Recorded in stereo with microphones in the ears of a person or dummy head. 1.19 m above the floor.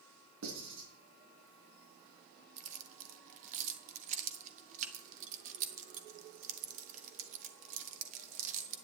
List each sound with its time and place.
0.4 s writing: 75° right (ahead or behind), 3.5 m
2.6 s keys jangling: 45° right (ahead or behind), 1.2 m